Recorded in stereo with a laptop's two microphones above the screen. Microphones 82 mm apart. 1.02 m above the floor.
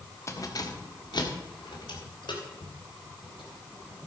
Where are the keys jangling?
40° left (ahead or behind), 1.0 m; by 4.0 s 90° left, 4 m.